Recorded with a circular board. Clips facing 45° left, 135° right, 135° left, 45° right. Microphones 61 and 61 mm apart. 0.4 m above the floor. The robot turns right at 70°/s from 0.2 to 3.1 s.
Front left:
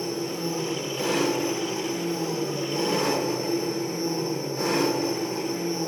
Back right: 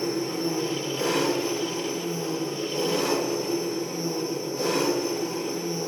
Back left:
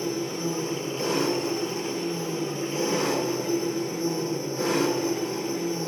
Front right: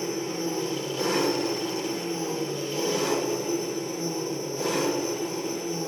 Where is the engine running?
115° right, 6 m; by 5.9 s 85° left, 6 m.